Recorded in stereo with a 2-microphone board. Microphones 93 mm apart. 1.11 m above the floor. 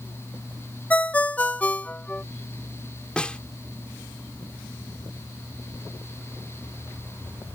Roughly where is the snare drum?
Centre.